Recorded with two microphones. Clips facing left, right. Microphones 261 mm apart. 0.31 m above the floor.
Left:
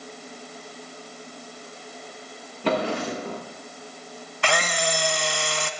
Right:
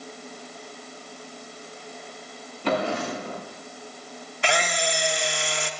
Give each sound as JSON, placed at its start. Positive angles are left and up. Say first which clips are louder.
{"t": 2.6, "sound": "a drawer", "louder": "left 1 dB", "side_deg": 60, "distance_m": 9.0}
{"t": 4.4, "sound": "a camera shutter", "louder": "even", "side_deg": 70, "distance_m": 1.5}